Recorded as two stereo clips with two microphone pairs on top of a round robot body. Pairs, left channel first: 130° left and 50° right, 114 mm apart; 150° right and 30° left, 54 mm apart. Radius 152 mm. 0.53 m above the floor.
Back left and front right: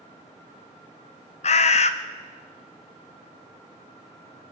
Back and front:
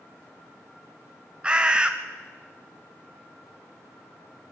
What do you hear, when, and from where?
1.4 s a bird: 100° left, 0.6 m